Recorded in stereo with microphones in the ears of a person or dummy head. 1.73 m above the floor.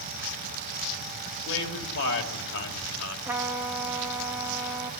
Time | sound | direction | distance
1.4 | a man speaking | 70° left (ahead or behind) | 3 m
3.2 | a trumpet | 15° right (ahead or behind) | 1.2 m